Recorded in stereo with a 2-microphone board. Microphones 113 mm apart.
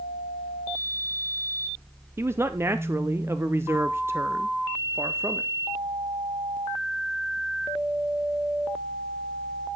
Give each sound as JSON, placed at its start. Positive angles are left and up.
{"t": 2.2, "sound": "a man speaking", "side_deg": -20, "distance_m": 0.6}